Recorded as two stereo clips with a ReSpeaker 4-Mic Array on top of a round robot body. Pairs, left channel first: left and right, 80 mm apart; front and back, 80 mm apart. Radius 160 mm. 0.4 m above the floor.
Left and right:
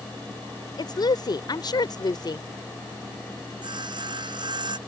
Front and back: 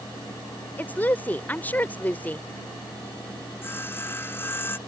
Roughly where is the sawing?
Ahead right.